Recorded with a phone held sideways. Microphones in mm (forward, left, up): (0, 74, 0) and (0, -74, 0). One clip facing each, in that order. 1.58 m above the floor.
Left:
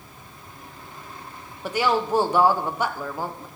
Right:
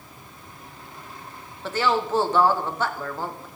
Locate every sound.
1.6 s a woman speaking: 15° left (ahead or behind), 1.1 m